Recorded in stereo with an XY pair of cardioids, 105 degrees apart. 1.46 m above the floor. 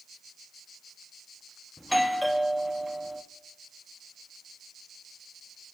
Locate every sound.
1.8 s a doorbell: 5° left, 1.2 m